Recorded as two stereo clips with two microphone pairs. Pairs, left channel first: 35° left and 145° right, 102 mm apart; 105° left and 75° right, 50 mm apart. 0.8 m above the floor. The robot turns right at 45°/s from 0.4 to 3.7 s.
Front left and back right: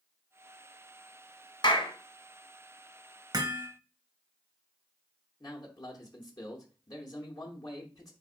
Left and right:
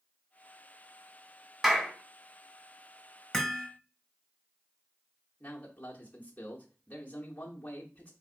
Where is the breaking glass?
No breaking glass in this recording.